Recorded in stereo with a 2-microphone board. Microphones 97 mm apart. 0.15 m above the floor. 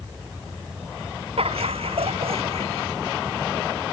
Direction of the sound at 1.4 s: 80° right.